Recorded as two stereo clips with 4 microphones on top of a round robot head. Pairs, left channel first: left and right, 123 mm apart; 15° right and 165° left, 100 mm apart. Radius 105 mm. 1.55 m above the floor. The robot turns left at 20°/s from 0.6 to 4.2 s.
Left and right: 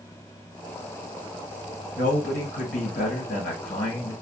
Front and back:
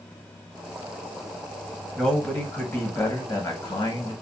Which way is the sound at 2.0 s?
70° left.